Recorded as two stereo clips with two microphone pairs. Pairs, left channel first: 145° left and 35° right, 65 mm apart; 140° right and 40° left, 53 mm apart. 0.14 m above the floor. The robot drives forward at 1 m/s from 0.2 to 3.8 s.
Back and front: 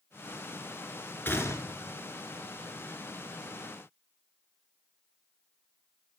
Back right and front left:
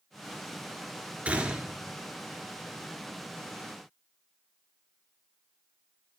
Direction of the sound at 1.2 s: 95° left.